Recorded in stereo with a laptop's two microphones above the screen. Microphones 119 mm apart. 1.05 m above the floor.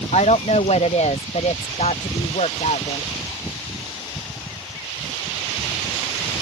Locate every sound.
0.1 s a woman speaking: 65° left (ahead or behind)